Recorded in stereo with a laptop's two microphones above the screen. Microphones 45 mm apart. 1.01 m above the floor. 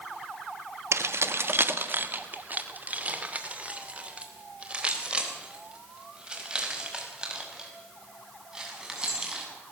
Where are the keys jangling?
75° right (ahead or behind), 1.1 m; by 9.5 s 15° right (ahead or behind), 7 m.